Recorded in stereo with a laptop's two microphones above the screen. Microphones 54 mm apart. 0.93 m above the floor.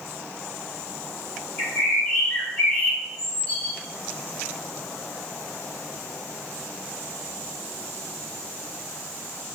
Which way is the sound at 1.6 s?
30° left (ahead or behind).